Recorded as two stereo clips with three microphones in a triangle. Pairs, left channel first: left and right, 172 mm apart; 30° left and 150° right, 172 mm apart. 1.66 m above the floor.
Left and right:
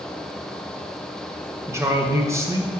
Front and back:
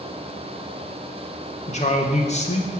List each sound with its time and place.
1.7 s a man speaking: 20° right, 1.2 m